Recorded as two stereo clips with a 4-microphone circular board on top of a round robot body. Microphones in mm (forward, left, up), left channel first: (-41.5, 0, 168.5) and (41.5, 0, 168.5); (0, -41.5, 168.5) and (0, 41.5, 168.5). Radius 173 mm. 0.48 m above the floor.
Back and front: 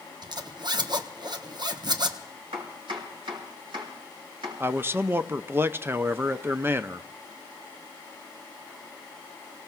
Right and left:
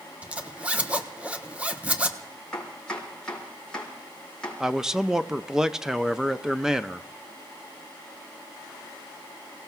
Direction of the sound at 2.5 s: 10° right.